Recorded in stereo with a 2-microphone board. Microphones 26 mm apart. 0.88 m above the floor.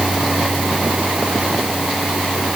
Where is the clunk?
No clunk in this recording.